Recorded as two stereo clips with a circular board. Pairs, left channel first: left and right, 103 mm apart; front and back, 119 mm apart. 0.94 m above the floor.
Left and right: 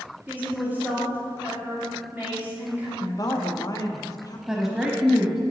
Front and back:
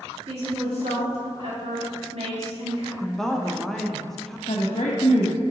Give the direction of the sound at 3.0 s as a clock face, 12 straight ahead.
9 o'clock.